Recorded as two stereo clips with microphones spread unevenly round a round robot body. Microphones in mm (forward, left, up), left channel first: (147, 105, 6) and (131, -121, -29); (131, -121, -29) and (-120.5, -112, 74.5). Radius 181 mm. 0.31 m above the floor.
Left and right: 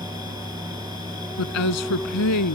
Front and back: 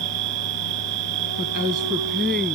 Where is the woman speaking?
100° left.